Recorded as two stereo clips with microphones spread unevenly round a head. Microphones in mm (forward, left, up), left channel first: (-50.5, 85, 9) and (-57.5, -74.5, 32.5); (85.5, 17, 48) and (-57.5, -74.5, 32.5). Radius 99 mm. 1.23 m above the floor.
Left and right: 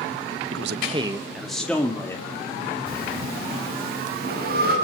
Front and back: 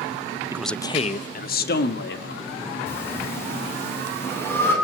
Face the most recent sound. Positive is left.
turn(degrees=-45)